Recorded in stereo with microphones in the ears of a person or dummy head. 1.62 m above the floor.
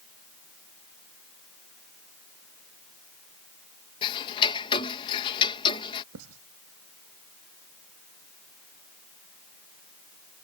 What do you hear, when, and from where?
4.0 s ticking: 25° left (ahead or behind)
6.1 s writing: 80° right